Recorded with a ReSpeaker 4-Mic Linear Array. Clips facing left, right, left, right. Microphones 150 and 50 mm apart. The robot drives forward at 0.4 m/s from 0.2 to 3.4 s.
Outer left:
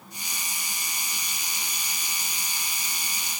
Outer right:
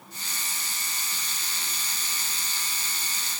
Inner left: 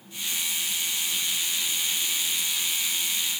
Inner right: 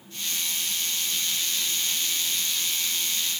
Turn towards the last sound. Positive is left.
No sound to turn to.